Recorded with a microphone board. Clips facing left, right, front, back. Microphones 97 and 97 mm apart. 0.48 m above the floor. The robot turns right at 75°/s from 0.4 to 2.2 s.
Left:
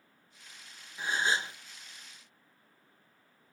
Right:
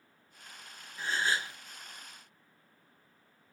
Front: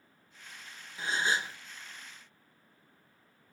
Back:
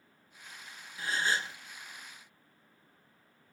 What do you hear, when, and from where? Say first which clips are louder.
1.0 s a gasp: left 1 dB, front 1 dB; 30° left, 0.5 m; by 1.6 s 70° left, 0.5 m